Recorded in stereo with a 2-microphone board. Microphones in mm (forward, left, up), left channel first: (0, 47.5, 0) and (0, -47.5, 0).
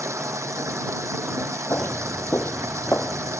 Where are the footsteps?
25° left (ahead or behind); by 3.4 s 20° left (ahead or behind).